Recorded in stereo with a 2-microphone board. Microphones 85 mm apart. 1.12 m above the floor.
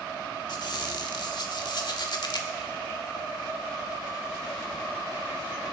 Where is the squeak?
55° left (ahead or behind), 1.2 m.